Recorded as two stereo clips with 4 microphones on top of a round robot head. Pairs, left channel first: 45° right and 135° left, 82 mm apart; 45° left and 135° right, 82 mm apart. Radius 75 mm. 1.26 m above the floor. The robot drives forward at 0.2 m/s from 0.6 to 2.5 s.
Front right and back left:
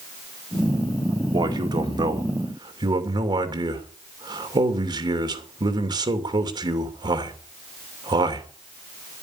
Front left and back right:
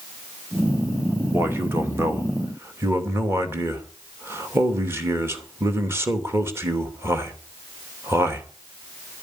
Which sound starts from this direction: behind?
A man speaking, at 1.3 s.